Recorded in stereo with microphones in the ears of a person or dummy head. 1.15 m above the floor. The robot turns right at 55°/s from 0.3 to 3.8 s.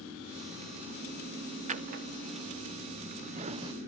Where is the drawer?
35° right (ahead or behind), 0.9 m; by 3.7 s 25° right (ahead or behind), 0.9 m.